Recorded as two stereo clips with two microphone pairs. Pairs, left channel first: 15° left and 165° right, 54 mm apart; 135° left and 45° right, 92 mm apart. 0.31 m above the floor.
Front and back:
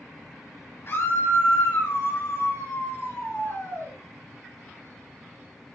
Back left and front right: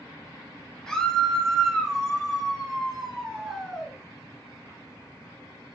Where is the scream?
50° left, 3.5 m; by 3.9 s 35° left, 5.5 m.